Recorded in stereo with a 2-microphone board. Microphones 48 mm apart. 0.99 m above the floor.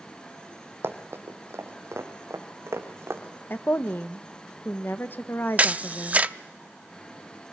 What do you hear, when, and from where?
0.8 s running footsteps: 45° right (ahead or behind), 2.5 m; by 3.2 s 70° right (ahead or behind), 4.5 m
3.5 s a woman speaking: 45° left (ahead or behind), 0.9 m
5.6 s a camera shutter: 30° right (ahead or behind), 0.6 m